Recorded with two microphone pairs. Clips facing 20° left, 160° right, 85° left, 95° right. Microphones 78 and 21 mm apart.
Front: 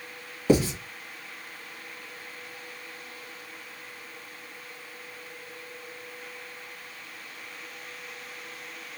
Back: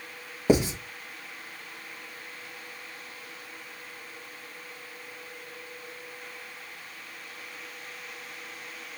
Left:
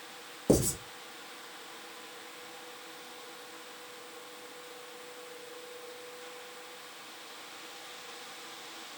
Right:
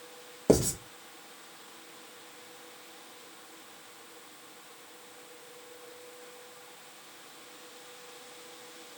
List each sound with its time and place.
0.5 s writing: 110° right, 1.1 m